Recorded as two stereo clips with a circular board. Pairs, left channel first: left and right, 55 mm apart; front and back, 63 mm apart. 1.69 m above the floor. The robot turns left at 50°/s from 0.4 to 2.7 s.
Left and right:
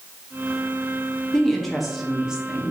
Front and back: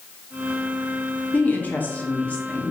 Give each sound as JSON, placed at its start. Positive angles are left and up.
{"t": 1.3, "sound": "a woman speaking", "azimuth_deg": 20, "distance_m": 0.5}